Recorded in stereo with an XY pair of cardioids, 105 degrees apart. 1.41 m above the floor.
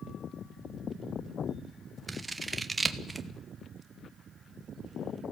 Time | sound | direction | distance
2.1 | scissors | 20° right | 1.3 m